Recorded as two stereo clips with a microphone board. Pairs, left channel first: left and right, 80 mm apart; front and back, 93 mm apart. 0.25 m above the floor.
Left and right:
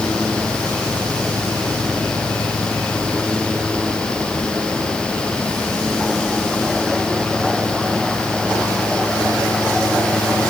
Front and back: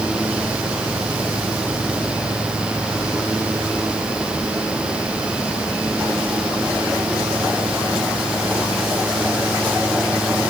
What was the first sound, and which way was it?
Only background noise.